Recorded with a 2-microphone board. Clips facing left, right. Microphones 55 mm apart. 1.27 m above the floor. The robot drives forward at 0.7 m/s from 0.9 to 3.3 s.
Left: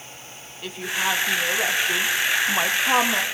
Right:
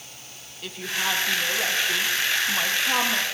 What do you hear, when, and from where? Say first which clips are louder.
0.6 s a woman speaking: left 3 dB; 10° left (ahead or behind), 1.3 m; by 3.2 s 20° left (ahead or behind), 0.7 m